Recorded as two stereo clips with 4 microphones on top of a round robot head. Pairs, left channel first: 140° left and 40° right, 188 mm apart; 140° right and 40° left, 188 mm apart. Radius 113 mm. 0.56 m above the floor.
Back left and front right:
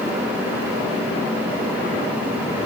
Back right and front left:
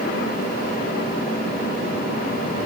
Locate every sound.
Only background noise.